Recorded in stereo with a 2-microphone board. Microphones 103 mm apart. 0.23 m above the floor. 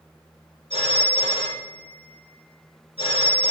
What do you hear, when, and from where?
0.7 s a phone ringing: 65° left (ahead or behind), 2.5 m